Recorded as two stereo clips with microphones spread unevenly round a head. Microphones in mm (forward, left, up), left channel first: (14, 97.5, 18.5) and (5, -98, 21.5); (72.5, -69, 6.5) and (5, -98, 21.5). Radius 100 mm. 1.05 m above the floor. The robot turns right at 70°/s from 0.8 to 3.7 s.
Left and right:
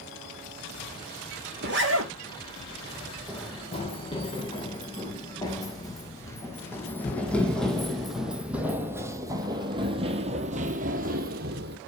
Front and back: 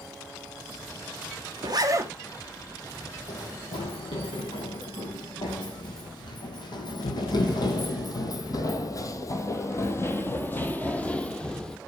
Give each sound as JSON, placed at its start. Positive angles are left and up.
{"t": 1.6, "sound": "a zipper", "azimuth_deg": -140, "distance_m": 2.5}
{"t": 3.3, "sound": "running footsteps", "azimuth_deg": -5, "distance_m": 4.0}